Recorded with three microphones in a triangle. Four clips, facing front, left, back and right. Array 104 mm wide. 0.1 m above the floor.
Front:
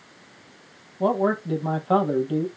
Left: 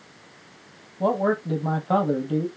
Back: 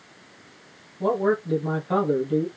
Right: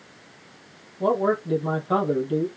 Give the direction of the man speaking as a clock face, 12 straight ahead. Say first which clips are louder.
Right 1 dB, even; 11 o'clock.